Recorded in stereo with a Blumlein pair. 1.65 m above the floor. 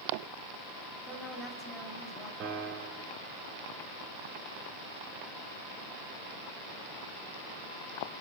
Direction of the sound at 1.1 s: 10° left.